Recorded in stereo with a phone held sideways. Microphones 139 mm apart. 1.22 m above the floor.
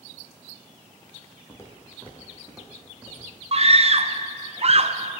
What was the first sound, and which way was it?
Footsteps, 20° left (ahead or behind).